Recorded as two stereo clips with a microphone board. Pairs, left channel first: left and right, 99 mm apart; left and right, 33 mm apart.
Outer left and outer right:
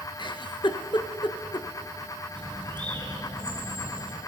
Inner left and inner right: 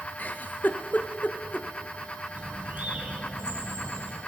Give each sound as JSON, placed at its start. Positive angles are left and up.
{"t": 0.2, "sound": "a giggle", "side_deg": 55, "distance_m": 0.6}
{"t": 2.4, "sound": "a bird", "side_deg": -50, "distance_m": 1.9}